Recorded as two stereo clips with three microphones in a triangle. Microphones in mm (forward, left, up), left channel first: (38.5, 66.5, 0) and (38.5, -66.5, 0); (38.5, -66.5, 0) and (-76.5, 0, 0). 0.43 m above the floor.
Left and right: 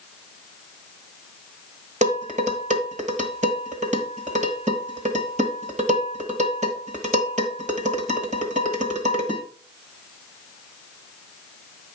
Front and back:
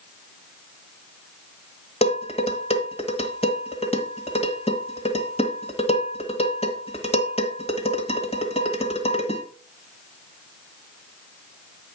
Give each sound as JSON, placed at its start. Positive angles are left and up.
{"t": 2.0, "sound": "dishes clattering", "azimuth_deg": -70, "distance_m": 1.5}